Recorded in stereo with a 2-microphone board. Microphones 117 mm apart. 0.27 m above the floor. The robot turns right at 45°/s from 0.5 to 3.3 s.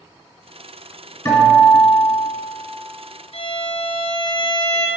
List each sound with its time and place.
1.2 s a guitar: 25° left, 2.5 m; by 2.3 s 70° left, 2.5 m
3.3 s a violin: 65° left (ahead or behind), 1.0 m